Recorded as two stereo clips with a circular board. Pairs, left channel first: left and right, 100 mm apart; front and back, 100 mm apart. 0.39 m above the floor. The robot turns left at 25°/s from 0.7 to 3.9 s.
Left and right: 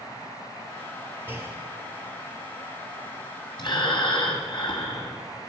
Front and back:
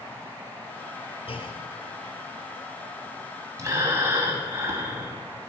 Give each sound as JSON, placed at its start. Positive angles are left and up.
{"t": 1.3, "sound": "a clunk", "azimuth_deg": -20, "distance_m": 2.0}
{"t": 3.6, "sound": "breathing", "azimuth_deg": 130, "distance_m": 2.5}